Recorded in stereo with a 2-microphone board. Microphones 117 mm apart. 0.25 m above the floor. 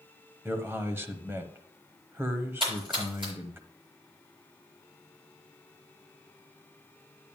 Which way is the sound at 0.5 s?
20° right (ahead or behind).